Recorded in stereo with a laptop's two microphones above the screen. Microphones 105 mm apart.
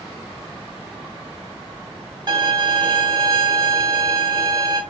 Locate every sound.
2.3 s a violin: 45° right (ahead or behind), 1.2 m